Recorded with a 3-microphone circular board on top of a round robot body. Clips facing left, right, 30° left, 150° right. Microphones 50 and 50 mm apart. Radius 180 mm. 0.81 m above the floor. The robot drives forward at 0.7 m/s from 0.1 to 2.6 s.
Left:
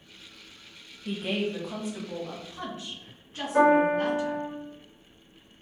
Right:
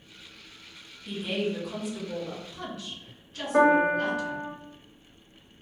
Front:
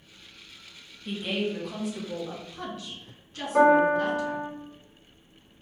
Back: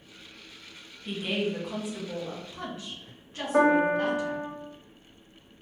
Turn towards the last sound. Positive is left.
turn(degrees=-140)